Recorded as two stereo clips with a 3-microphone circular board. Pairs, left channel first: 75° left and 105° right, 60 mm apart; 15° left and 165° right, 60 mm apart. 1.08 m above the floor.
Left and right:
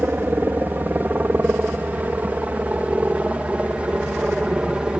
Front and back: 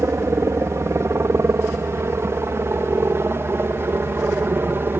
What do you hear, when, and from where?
0.0 s a helicopter: 150° right; by 5.0 s 170° right